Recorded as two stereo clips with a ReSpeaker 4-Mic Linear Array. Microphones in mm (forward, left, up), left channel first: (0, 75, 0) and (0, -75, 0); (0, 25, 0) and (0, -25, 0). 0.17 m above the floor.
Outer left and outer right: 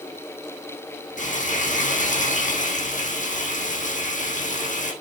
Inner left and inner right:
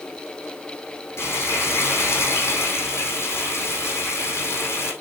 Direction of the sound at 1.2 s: 65° left (ahead or behind).